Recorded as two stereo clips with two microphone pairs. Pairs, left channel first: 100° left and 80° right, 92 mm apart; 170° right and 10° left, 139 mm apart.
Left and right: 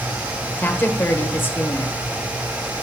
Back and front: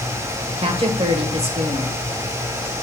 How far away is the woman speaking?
About 1.2 m.